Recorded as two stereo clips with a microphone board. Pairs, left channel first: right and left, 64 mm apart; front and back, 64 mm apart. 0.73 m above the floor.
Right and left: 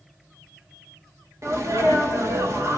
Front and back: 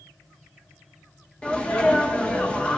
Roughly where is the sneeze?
Ahead left.